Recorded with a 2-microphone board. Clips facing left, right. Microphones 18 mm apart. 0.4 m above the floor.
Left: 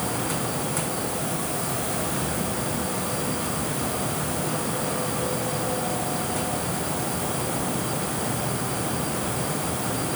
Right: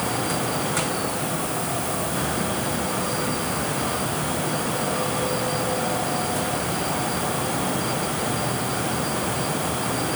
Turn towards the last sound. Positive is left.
No sound to turn to.